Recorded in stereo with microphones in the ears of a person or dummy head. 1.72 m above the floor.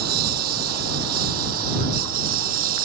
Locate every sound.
0.0 s a lawn mower: 60° right (ahead or behind); by 2.9 s 55° right (ahead or behind)